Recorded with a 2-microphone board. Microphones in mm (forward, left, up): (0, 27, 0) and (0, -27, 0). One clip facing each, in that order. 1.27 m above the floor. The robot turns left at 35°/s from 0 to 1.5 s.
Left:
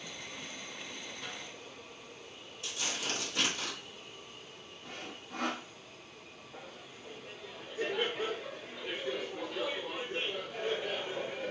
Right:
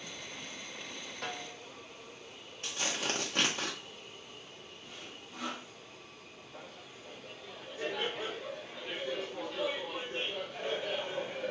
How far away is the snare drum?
About 0.6 m.